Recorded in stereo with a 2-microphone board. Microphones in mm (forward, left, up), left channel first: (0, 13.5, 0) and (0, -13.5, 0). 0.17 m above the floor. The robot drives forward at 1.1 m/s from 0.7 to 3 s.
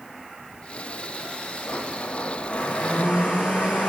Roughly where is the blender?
Left.